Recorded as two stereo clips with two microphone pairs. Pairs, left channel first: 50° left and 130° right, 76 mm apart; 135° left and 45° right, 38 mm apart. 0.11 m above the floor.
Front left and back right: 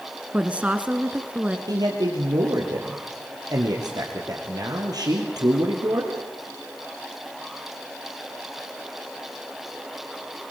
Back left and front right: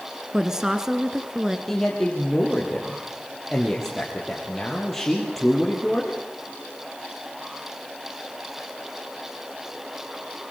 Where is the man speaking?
145° right, 3 m.